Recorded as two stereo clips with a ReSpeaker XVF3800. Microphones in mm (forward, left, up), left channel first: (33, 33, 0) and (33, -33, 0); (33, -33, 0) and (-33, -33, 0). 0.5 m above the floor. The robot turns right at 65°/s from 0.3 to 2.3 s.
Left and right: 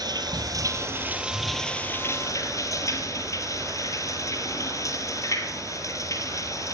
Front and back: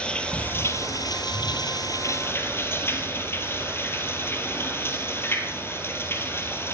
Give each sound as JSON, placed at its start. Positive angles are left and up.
{"t": 0.0, "sound": "running water", "azimuth_deg": -75, "distance_m": 2.0}